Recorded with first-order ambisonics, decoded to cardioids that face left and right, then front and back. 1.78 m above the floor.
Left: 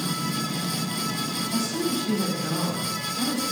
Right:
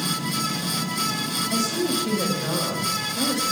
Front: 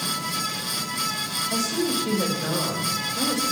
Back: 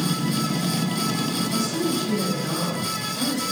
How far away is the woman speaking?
About 5 m.